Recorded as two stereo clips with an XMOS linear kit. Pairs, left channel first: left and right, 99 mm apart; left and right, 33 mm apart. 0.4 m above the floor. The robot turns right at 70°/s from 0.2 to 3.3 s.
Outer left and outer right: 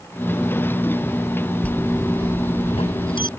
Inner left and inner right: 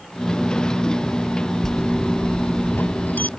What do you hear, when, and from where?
1.6 s a bell: 15° left; by 3.3 s 130° left